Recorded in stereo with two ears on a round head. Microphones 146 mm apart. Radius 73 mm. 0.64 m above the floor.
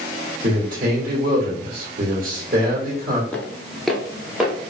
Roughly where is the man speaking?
Right.